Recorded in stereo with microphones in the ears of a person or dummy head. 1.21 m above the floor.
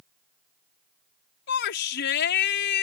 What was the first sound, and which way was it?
A shout, 50° left (ahead or behind).